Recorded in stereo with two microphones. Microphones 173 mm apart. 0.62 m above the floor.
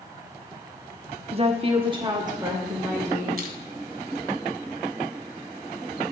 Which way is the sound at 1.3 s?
35° right (ahead or behind).